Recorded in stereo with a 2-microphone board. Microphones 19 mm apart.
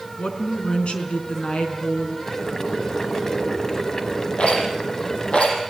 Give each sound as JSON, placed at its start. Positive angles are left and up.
{"t": 0.2, "sound": "a woman speaking", "side_deg": 75, "distance_m": 4.5}
{"t": 2.3, "sound": "boiling", "side_deg": 25, "distance_m": 2.0}
{"t": 4.4, "sound": "a rattle", "side_deg": 65, "distance_m": 8.0}